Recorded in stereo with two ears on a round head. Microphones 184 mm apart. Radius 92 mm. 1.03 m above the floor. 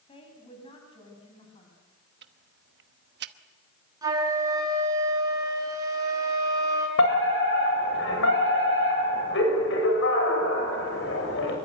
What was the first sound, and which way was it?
A woman speaking, 25° left (ahead or behind).